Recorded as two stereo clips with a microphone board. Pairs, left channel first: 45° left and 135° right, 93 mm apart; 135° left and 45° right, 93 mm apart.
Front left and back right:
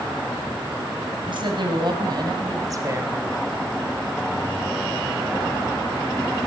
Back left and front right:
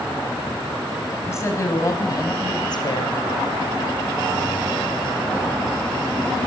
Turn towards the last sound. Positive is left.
turn(degrees=165)